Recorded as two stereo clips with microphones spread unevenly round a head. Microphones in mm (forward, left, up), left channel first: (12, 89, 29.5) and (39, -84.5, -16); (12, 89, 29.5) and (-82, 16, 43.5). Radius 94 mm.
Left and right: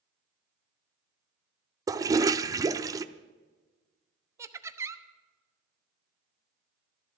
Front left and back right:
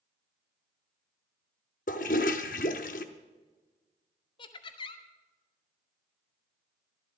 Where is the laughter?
10° right, 1.0 m.